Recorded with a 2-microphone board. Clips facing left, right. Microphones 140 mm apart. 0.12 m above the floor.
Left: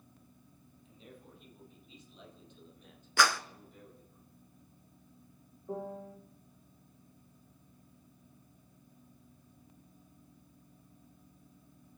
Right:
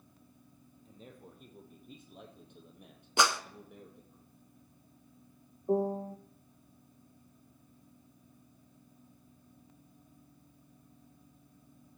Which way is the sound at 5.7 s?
35° right (ahead or behind).